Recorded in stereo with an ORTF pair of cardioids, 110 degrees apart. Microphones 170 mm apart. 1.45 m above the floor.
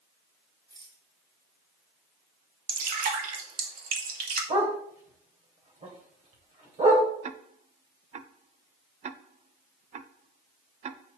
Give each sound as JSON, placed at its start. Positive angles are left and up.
{"t": 0.7, "sound": "a rattle", "azimuth_deg": -25, "distance_m": 3.0}
{"t": 2.7, "sound": "dripping", "azimuth_deg": -55, "distance_m": 2.5}
{"t": 4.5, "sound": "a dog barking", "azimuth_deg": -45, "distance_m": 3.0}
{"t": 7.2, "sound": "ticking", "azimuth_deg": -40, "distance_m": 0.7}